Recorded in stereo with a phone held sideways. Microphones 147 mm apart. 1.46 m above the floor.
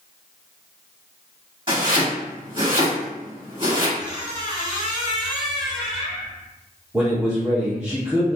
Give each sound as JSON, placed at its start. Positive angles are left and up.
{"t": 1.7, "sound": "chopping", "side_deg": -35, "distance_m": 1.4}
{"t": 4.0, "sound": "a squeak", "side_deg": -30, "distance_m": 0.7}
{"t": 6.9, "sound": "a man speaking", "side_deg": -15, "distance_m": 1.4}